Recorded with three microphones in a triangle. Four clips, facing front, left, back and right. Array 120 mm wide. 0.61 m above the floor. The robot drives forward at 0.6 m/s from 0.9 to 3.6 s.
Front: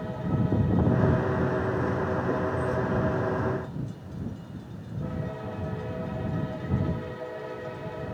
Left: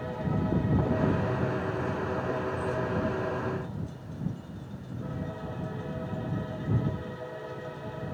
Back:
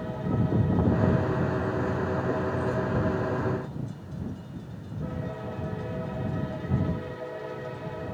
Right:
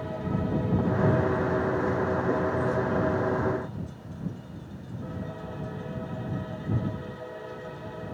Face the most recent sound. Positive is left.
No sound to turn to.